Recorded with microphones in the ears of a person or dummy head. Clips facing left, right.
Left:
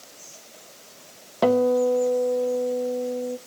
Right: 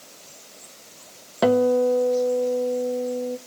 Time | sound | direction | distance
1.4 | a guitar | 5° right (ahead or behind) | 0.7 m